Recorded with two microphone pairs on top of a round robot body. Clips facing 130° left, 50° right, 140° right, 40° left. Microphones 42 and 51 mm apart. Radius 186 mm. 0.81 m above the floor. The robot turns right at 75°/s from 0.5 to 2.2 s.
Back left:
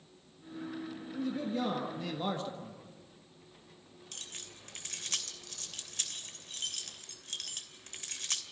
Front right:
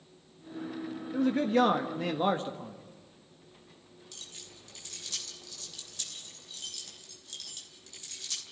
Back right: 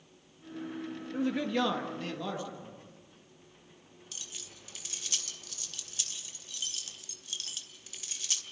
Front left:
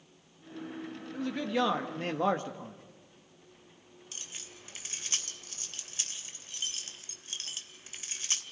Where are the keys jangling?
95° left, 2.5 m.